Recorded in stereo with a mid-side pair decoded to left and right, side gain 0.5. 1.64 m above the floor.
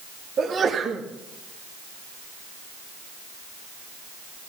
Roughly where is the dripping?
No dripping in this recording.